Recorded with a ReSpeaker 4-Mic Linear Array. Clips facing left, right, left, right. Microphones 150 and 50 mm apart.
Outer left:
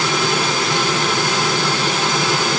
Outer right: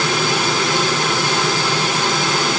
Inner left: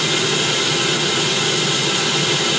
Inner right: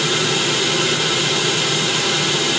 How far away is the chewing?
No chewing in this recording.